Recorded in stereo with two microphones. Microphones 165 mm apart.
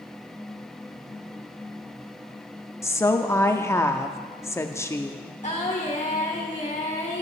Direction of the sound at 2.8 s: 15° left (ahead or behind).